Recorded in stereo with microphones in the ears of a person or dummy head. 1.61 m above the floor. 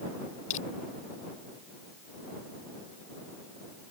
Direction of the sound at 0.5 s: 45° left (ahead or behind).